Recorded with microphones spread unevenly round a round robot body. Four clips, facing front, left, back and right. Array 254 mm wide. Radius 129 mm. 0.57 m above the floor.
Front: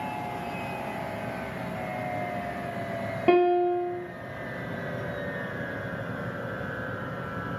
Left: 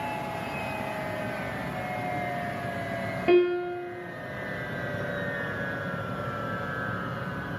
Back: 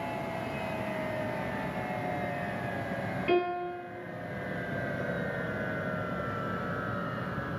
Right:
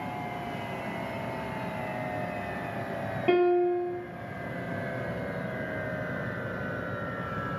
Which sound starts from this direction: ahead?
A piano, at 3.3 s.